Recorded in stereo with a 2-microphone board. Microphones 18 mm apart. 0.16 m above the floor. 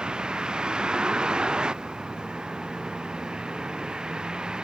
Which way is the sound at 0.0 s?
60° right (ahead or behind).